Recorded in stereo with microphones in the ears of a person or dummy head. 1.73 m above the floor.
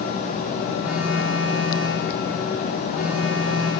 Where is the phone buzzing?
10° right (ahead or behind), 0.7 m.